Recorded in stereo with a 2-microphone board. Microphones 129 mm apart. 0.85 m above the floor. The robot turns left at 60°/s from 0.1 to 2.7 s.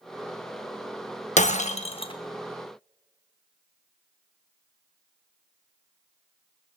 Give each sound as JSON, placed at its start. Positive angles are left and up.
{"t": 1.4, "sound": "breaking glass", "azimuth_deg": 90, "distance_m": 0.8}